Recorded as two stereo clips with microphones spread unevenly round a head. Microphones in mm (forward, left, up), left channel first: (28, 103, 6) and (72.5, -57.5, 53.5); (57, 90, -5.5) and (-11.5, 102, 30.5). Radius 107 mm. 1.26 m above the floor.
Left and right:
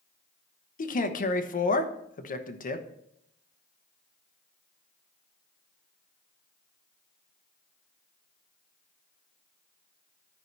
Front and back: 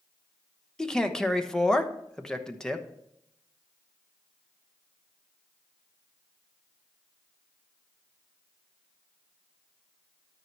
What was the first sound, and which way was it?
A man speaking, 70° left.